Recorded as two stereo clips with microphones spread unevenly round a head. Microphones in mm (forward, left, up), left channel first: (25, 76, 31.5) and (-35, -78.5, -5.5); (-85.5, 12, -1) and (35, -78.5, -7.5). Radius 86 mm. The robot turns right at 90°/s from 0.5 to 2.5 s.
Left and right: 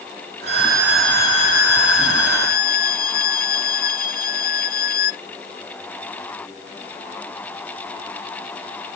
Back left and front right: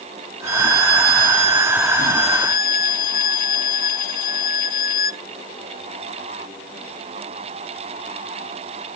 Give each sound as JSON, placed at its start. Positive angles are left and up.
{"t": 0.5, "sound": "a violin", "azimuth_deg": -70}